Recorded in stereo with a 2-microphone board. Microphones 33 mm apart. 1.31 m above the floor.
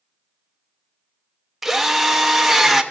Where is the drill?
5° right (ahead or behind), 0.9 m.